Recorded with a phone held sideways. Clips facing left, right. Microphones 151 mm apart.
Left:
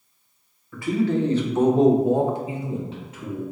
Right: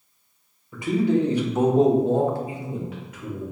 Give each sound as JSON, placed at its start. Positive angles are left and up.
{"t": 0.7, "sound": "a man speaking", "side_deg": -20, "distance_m": 1.1}